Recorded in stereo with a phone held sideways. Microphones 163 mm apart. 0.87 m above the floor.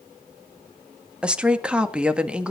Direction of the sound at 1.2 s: 5° right (ahead or behind).